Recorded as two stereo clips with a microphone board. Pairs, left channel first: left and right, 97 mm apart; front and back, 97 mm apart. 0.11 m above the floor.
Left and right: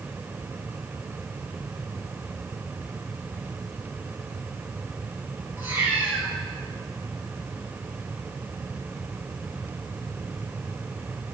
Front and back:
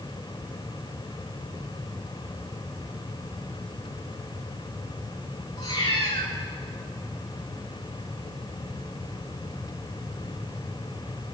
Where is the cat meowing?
25° right, 6 m.